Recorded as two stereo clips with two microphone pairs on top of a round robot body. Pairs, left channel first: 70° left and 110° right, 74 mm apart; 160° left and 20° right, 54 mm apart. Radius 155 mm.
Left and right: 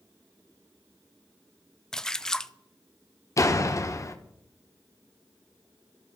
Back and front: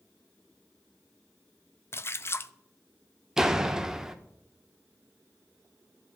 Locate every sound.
1.9 s a splash: 155° left, 0.5 m
3.4 s a door slam: 50° left, 0.9 m